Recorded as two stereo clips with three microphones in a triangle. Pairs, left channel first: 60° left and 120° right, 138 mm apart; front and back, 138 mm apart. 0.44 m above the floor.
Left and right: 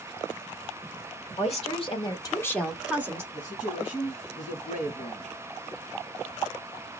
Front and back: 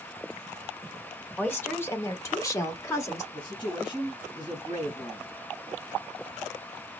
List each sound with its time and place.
1.4 s a woman speaking: 75° left, 1.4 m; by 3.2 s 60° right, 1.1 m
3.3 s a man speaking: 50° left, 4 m